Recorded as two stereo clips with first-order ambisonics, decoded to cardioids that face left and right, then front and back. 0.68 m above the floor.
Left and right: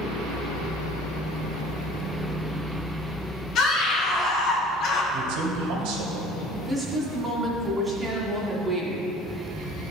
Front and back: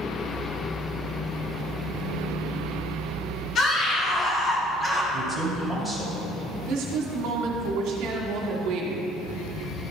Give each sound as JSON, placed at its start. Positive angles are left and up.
{"t": 3.5, "sound": "a scream", "azimuth_deg": 50, "distance_m": 2.0}
{"t": 5.1, "sound": "a man speaking", "azimuth_deg": -85, "distance_m": 1.9}
{"t": 6.7, "sound": "a woman speaking", "azimuth_deg": -170, "distance_m": 1.8}